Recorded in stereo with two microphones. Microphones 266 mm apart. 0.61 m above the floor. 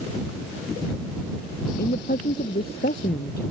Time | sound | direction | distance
1.7 | a woman speaking | 35° left (ahead or behind) | ?